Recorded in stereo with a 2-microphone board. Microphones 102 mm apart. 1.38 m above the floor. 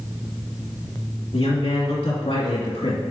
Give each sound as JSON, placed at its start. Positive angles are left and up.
{"t": 1.3, "sound": "a man speaking", "side_deg": 65, "distance_m": 2.5}